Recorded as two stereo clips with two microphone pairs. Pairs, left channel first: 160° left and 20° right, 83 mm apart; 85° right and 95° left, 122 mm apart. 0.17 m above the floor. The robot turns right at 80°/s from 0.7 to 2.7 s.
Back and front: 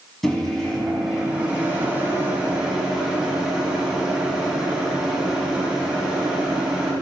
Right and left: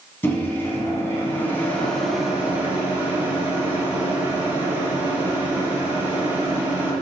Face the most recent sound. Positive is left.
turn(degrees=45)